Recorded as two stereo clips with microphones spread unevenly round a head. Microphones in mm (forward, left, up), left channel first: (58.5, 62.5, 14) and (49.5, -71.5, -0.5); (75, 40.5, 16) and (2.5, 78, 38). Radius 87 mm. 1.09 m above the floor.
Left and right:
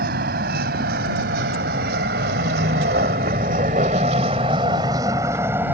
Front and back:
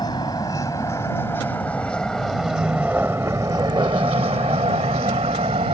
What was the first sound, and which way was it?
A vehicle, 100° right.